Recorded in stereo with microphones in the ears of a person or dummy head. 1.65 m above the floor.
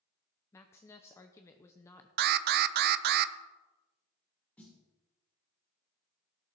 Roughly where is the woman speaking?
Centre.